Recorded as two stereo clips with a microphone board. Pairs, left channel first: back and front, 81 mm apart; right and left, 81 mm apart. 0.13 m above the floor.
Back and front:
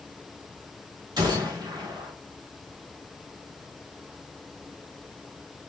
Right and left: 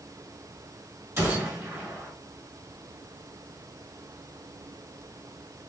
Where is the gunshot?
35° left, 3 m.